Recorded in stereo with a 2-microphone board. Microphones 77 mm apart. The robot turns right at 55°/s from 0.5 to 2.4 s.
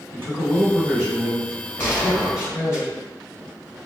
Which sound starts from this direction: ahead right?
A man speaking, at 0.1 s.